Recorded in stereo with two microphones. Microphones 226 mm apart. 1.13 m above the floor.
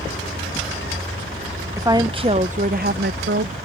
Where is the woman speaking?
15° right (ahead or behind); by 3.5 s 55° right (ahead or behind).